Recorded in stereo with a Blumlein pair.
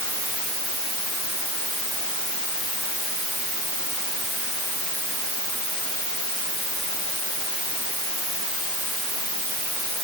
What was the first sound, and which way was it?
Only background noise.